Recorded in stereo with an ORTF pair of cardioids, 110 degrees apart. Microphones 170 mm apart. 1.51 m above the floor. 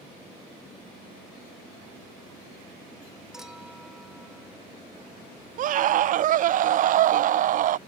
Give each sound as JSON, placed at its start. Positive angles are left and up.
{"t": 3.3, "sound": "a clink", "azimuth_deg": -5}
{"t": 5.6, "sound": "a scream", "azimuth_deg": -55}